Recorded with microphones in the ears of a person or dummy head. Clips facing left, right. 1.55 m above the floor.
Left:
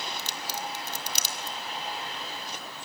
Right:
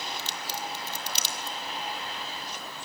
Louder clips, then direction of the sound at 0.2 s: Even; 50° left (ahead or behind).